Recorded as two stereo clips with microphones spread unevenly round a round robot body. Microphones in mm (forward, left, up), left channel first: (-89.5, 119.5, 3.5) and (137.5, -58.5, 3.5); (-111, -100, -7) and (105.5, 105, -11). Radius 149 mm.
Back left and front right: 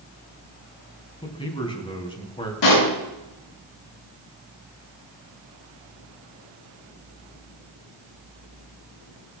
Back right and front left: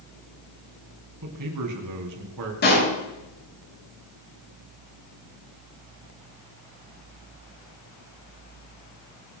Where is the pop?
165° left, 5.5 m.